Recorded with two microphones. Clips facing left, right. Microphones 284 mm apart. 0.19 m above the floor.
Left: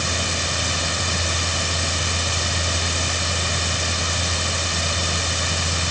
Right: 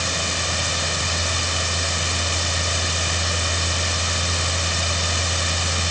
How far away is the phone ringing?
No phone ringing in this recording.